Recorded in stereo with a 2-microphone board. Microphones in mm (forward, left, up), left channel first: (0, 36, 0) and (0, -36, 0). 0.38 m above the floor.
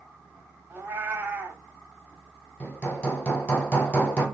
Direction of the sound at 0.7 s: 30° right (ahead or behind).